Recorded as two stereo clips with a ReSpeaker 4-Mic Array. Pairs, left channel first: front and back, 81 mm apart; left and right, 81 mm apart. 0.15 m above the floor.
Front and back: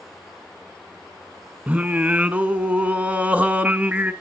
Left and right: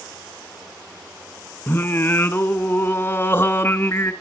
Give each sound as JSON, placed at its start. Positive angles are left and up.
{"t": 1.7, "sound": "singing", "azimuth_deg": 125, "distance_m": 0.5}